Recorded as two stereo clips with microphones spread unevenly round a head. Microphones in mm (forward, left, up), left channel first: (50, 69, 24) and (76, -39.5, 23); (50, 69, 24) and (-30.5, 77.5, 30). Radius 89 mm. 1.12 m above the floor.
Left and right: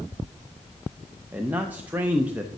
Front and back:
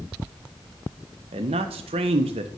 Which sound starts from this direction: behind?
A man speaking, at 1.3 s.